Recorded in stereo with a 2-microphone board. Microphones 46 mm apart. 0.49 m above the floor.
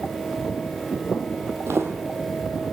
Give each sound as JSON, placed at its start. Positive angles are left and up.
{"t": 1.7, "sound": "footsteps", "side_deg": -70, "distance_m": 1.2}